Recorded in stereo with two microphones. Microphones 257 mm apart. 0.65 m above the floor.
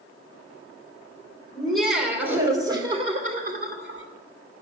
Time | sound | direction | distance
1.6 | laughter | 5° left (ahead or behind) | 2.5 m